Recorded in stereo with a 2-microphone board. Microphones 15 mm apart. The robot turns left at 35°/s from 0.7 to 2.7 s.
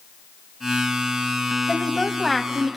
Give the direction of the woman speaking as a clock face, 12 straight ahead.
11 o'clock.